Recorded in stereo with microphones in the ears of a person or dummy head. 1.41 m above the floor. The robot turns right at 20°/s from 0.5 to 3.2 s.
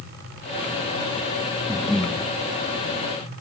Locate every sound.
1.7 s breathing: 5° right (ahead or behind), 1.2 m; by 2.2 s 5° left (ahead or behind), 1.2 m